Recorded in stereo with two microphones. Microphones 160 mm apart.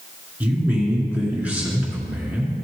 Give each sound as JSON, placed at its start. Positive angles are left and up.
{"t": 0.4, "sound": "a man speaking", "side_deg": -10, "distance_m": 2.5}